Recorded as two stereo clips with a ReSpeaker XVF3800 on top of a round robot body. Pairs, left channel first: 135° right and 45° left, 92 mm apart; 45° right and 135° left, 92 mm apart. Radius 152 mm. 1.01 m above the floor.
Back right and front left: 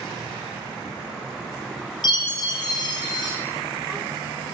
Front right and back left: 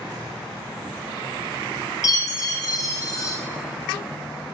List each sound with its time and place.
2.0 s a chime: 95° right, 1.0 m